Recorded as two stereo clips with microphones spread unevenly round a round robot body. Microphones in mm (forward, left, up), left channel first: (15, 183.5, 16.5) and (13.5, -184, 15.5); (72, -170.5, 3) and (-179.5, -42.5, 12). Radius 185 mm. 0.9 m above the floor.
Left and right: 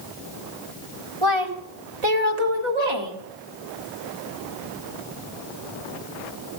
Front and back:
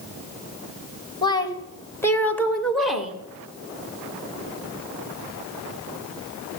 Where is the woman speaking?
100° right, 3.5 m; by 3.2 s 120° right, 2.5 m.